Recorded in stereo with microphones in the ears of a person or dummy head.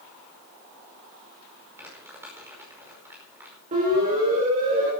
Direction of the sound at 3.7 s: 45° right (ahead or behind).